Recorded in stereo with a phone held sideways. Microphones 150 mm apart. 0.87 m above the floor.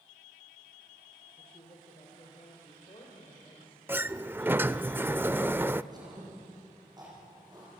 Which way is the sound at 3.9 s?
15° right (ahead or behind).